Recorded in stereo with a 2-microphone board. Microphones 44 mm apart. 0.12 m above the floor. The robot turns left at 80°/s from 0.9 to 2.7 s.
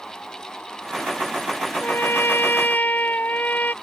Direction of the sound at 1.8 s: 125° left.